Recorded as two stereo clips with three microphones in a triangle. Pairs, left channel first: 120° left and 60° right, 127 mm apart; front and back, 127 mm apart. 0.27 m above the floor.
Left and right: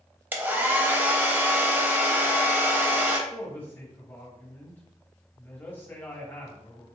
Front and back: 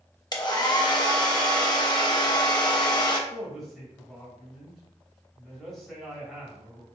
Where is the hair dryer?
Straight ahead, 0.5 m.